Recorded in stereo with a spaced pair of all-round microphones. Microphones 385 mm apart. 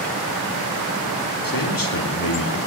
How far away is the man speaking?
About 2.5 m.